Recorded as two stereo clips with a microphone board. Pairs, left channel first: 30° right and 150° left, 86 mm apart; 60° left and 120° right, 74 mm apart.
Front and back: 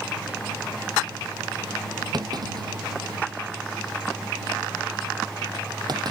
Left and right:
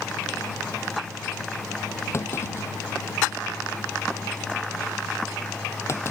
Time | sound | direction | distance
2.1 | a clunk | 110° left | ?